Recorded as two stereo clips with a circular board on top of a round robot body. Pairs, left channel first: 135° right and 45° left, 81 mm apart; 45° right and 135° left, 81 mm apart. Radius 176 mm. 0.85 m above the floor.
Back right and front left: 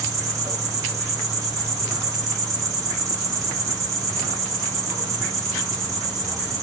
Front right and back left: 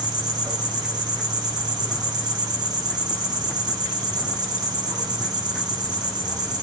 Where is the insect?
100° left, 7 m.